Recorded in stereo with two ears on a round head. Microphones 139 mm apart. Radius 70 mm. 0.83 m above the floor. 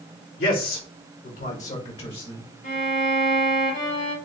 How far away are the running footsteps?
No running footsteps in this recording.